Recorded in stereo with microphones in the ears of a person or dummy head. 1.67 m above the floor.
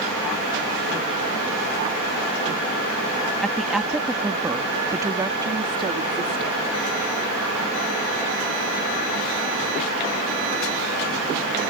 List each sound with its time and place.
3.4 s a woman speaking: centre (ahead or behind); by 6.6 s 30° right (ahead or behind)